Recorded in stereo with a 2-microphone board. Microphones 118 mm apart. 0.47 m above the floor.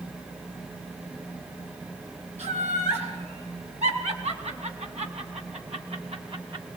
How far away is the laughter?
About 7.5 m.